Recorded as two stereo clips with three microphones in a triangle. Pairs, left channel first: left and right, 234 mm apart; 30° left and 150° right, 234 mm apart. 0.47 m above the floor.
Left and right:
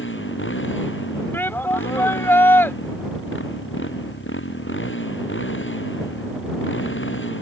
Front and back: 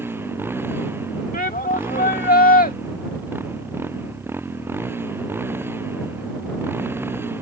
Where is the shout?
15° left.